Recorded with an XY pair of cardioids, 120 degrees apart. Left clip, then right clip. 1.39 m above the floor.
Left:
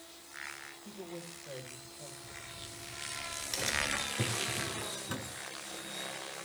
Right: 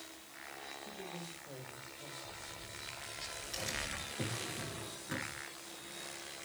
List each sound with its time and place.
0.8 s a woman speaking: 60° left, 8 m
2.2 s a crack: 60° left, 8.5 m
4.2 s a drawer: 55° left, 7 m